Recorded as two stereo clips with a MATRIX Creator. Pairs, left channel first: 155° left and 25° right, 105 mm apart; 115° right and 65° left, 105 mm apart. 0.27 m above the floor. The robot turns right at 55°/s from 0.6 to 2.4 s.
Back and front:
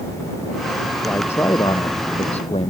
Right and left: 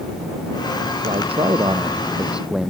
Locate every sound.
1.0 s a man speaking: 75° left; by 2.7 s 150° left